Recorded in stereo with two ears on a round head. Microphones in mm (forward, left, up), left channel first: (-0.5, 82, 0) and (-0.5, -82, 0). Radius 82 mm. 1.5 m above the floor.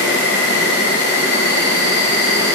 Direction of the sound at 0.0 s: 60° left (ahead or behind).